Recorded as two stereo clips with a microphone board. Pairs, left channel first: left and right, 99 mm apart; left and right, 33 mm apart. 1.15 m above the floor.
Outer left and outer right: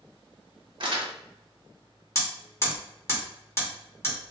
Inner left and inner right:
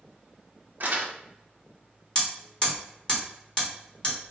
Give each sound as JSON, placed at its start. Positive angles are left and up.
{"t": 0.8, "sound": "crumpling", "side_deg": -55, "distance_m": 0.7}
{"t": 2.1, "sound": "hammering", "side_deg": 30, "distance_m": 1.1}